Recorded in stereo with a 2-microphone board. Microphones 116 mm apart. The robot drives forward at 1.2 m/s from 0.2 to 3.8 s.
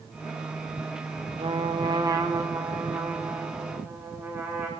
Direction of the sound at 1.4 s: 60° right (ahead or behind).